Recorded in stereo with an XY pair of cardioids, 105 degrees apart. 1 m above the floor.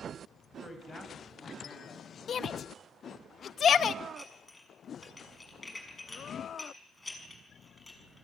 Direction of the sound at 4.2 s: 15° left.